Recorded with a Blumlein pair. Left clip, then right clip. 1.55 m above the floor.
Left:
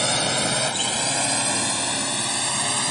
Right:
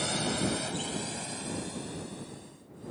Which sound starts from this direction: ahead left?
A drone, at 0.0 s.